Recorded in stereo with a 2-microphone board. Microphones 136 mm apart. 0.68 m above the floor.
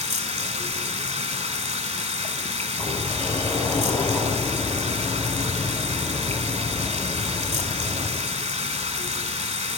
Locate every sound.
0.0 s running water: 55° right (ahead or behind), 1.2 m
2.8 s a sliding door: 15° left (ahead or behind), 5 m